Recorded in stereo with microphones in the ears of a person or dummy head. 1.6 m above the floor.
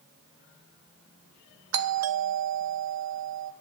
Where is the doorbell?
85° right, 0.7 m.